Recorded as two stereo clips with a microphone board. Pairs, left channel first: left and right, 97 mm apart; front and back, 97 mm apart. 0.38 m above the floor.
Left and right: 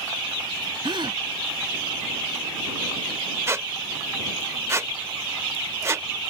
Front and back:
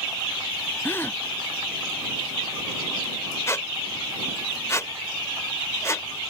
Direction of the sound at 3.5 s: 45° right.